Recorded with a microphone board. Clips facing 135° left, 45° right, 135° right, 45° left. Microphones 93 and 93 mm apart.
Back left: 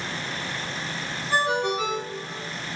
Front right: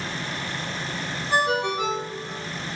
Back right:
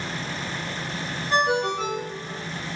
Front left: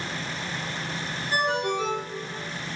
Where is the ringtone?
115° right, 4 m.